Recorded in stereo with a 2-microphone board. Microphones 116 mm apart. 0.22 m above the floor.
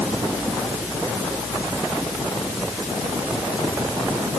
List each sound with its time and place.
Only background noise.